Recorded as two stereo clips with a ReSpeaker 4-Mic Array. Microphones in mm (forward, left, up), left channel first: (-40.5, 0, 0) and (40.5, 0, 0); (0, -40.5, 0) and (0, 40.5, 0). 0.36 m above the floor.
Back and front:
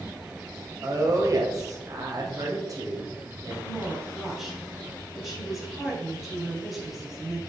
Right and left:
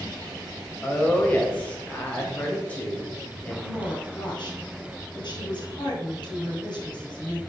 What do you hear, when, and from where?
0.8 s a woman speaking: 25° right, 1.7 m
3.6 s a woman speaking: 85° right, 2.5 m